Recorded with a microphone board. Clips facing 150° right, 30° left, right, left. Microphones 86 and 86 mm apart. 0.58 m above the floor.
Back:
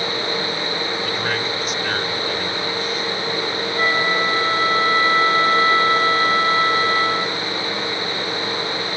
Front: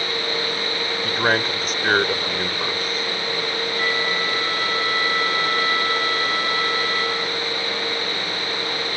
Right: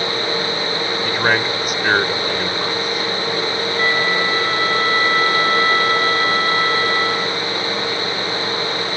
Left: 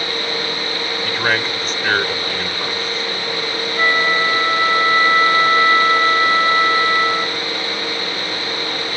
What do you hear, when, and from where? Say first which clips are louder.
1.0 s a man speaking: front 2 dB, right 1 dB; 10° right
3.8 s a flute: back 6 dB, left 3 dB; 160° left